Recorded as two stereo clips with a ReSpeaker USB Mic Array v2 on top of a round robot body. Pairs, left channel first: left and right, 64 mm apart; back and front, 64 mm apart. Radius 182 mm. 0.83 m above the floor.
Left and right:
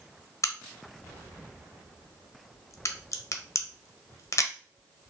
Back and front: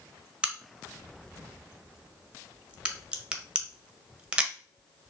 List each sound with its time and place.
0.4 s a crack: 70° left, 0.9 m